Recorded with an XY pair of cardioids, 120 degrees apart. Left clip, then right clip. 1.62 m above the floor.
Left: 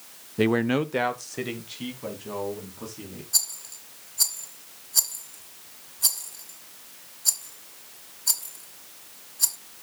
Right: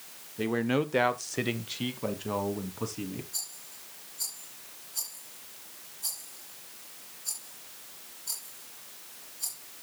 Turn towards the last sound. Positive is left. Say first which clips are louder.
# left 12 dB
turn(degrees=65)